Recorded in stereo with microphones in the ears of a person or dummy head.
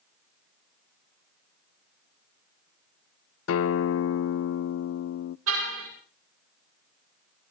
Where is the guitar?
65° left (ahead or behind), 0.5 m.